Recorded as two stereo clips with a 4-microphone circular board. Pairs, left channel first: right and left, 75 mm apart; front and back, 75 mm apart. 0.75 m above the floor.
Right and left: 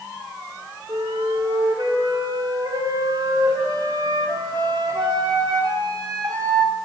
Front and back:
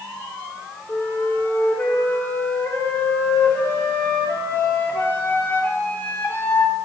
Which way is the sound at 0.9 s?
65° left.